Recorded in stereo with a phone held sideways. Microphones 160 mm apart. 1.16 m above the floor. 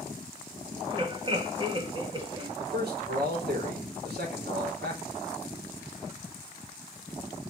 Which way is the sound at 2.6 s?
85° right.